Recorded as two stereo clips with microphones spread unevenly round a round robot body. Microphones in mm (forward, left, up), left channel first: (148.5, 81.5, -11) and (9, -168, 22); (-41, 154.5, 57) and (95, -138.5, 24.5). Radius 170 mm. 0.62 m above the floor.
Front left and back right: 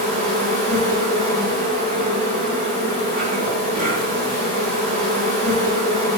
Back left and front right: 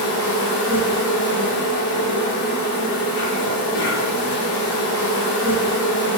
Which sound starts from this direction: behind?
An insect, at 0.0 s.